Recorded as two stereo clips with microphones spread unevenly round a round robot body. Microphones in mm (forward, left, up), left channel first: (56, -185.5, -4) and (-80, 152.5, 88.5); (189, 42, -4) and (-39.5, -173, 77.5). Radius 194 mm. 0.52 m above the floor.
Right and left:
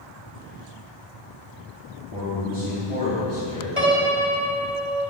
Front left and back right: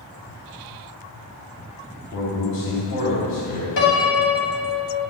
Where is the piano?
30° left, 3.5 m.